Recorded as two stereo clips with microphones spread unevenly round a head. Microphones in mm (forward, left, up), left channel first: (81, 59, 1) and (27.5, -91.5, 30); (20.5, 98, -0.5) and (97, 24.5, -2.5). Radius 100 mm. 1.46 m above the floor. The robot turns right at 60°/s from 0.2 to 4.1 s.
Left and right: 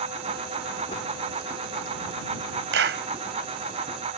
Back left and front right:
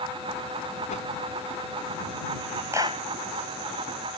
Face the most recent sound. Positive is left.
turn(degrees=-40)